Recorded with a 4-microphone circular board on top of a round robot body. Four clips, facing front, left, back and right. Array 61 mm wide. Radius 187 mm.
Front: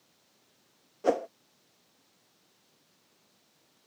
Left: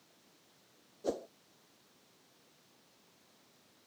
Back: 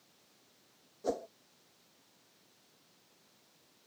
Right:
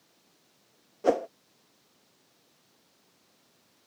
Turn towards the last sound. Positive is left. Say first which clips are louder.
# right 12 dB, front 9 dB
turn(degrees=-45)